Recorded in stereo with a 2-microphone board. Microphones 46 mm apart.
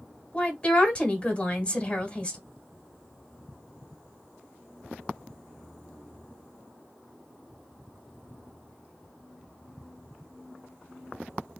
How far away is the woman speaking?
About 1.4 m.